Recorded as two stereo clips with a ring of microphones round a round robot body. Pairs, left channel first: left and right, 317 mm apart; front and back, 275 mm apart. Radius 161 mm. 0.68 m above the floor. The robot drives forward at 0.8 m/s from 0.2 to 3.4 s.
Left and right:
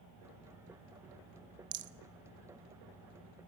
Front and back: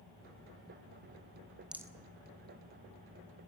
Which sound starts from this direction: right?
A rattle, at 1.7 s.